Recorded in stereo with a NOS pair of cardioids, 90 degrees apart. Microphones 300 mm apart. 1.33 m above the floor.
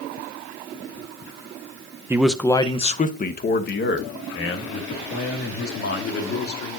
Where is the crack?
No crack in this recording.